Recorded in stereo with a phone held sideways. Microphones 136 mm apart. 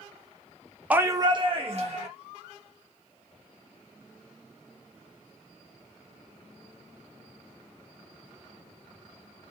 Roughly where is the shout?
Centre.